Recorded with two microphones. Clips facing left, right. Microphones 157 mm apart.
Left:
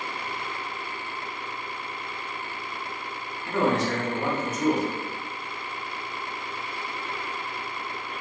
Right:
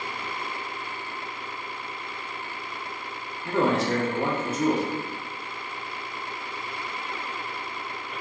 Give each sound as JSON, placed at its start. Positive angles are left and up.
{"t": 3.5, "sound": "a man speaking", "side_deg": -30, "distance_m": 1.3}